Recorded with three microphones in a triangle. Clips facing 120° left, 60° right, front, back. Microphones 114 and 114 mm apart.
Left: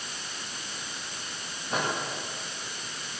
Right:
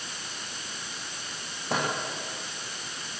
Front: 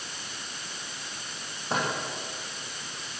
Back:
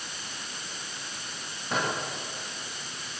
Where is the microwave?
55° right, 9 m.